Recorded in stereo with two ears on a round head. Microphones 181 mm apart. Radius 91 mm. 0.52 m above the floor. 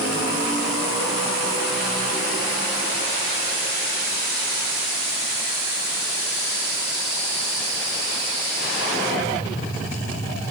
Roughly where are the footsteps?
I don't hear footsteps.